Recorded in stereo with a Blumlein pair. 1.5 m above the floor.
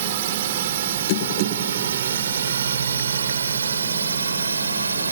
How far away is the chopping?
I don't hear chopping.